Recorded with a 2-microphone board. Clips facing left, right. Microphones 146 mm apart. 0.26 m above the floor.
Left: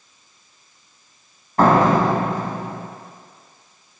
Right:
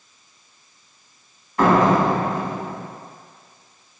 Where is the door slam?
45° left (ahead or behind), 1.0 m.